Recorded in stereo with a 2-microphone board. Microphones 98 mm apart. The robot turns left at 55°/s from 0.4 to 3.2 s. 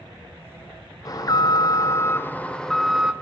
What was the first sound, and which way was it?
An alarm, 100° left.